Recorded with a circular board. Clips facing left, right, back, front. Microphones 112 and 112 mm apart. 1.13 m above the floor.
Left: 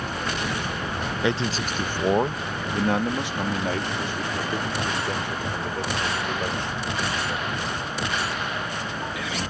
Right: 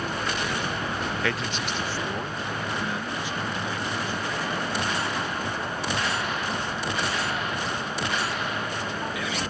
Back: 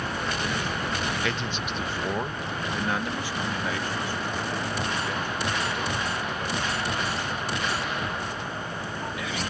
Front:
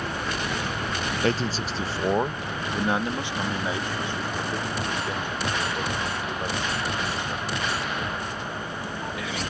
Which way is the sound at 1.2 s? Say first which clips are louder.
Left 4 dB, front 5 dB; 25° left.